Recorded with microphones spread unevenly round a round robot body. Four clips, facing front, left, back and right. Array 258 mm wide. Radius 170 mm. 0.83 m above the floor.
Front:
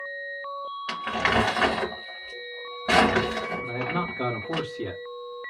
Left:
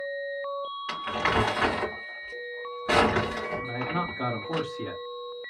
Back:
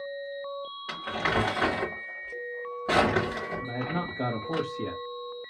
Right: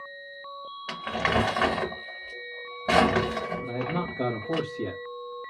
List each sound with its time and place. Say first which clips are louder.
0.9 s crumpling: right 1 dB, front 4 dB; 70° right, 1.7 m
3.6 s a man speaking: right 1 dB, front 3 dB; 110° right, 1.7 m